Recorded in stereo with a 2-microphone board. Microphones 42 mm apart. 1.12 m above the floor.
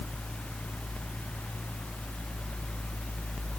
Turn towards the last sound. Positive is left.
No sound to turn to.